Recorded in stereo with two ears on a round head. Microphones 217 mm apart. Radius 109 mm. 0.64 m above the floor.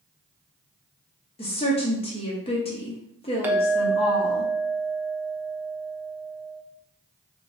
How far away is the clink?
About 0.5 m.